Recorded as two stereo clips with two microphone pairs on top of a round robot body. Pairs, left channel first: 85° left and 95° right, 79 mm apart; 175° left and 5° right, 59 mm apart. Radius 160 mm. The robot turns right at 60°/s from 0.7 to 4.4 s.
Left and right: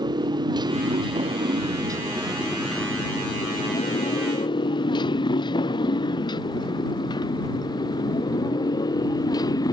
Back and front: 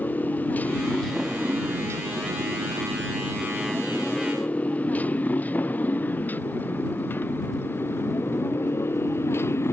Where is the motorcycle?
125° right; by 9.7 s 125° left.